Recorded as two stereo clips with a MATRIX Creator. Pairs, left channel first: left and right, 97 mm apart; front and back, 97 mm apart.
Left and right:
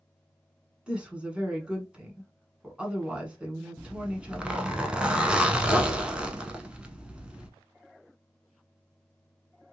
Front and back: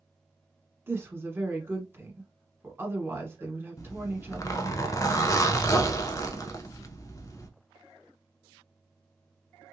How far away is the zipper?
About 0.5 m.